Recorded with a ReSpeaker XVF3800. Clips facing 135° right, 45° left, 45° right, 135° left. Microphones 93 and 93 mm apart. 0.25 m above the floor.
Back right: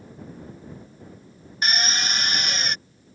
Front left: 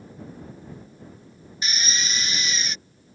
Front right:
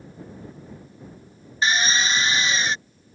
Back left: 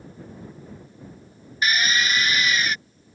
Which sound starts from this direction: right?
A drill, at 1.6 s.